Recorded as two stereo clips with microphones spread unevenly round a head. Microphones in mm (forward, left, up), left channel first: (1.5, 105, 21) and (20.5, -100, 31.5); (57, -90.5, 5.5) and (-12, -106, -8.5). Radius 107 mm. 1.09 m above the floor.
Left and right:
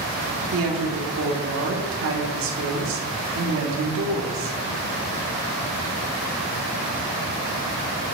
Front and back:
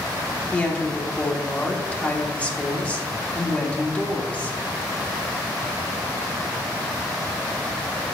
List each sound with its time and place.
0.5 s a woman speaking: 60° right, 2 m